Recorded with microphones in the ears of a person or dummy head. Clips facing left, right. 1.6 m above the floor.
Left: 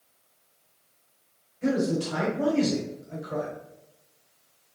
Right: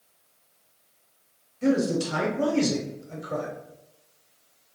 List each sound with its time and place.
1.6 s a man speaking: 60° right (ahead or behind), 1.1 m